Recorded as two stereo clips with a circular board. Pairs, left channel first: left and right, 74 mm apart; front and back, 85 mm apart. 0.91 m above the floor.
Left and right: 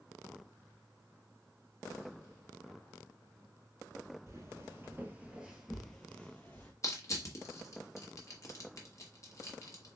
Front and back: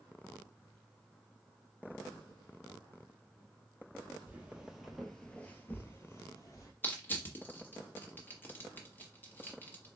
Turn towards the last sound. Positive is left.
turn(degrees=60)